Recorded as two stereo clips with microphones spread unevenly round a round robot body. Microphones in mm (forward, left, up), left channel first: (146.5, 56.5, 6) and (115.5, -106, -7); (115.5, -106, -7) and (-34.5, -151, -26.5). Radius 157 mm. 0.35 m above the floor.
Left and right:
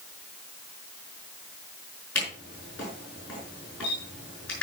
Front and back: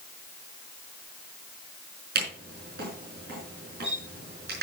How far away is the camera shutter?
About 5 m.